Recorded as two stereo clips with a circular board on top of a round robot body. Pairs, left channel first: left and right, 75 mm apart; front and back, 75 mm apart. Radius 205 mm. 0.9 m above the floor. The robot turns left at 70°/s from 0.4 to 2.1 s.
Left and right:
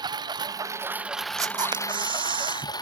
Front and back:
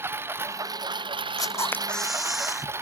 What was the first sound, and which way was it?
A lawn mower, 120° right.